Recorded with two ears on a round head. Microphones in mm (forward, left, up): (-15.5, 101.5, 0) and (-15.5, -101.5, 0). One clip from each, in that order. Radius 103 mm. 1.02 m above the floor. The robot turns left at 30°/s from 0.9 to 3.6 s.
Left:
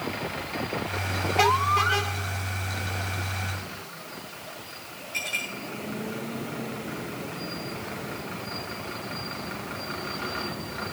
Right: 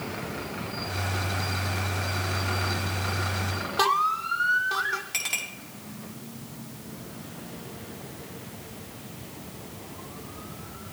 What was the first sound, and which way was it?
A clink, 65° right (ahead or behind).